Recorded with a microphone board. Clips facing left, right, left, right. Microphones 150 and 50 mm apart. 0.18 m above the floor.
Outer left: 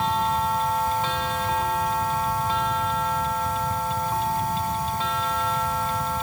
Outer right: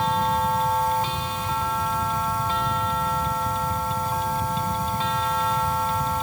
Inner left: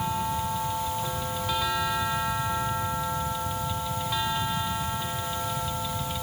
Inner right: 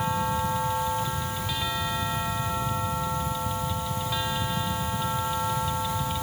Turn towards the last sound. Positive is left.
No sound to turn to.